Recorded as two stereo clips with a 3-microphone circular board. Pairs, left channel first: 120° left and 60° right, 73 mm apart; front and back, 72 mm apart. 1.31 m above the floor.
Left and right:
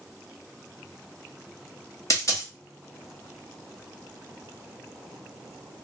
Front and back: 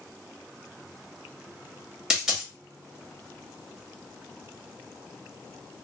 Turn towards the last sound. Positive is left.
turn(degrees=105)